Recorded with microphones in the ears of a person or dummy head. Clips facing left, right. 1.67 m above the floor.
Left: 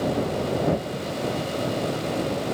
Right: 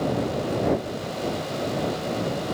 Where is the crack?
I don't hear a crack.